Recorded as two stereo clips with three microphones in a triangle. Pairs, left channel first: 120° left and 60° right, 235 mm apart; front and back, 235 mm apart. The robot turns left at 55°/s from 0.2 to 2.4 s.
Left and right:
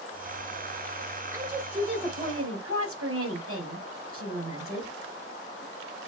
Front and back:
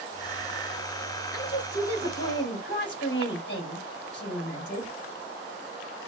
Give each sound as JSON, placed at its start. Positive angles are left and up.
{"t": 1.3, "sound": "a woman speaking", "azimuth_deg": 20, "distance_m": 4.0}